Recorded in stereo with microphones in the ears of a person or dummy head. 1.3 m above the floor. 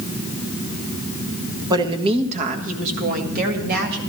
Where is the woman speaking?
25° right (ahead or behind), 1.1 m; by 4.0 s 60° right (ahead or behind), 2.5 m.